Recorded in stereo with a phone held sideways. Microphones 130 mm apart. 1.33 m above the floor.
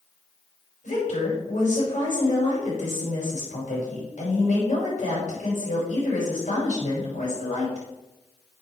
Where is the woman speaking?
75° left (ahead or behind), 5.5 m.